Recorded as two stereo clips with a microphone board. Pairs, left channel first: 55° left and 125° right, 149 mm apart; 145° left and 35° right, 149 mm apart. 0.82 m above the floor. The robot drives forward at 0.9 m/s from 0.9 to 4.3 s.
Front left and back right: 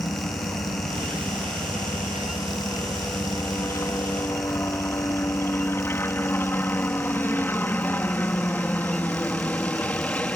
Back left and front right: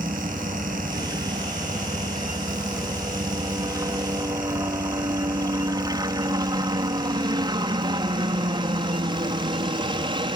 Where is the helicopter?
20° left; by 10.4 s 20° right.